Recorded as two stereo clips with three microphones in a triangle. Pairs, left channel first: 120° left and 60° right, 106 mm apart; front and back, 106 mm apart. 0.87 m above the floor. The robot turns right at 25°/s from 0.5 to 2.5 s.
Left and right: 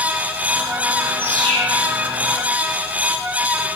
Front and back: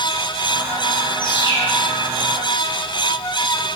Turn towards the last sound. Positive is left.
turn(degrees=75)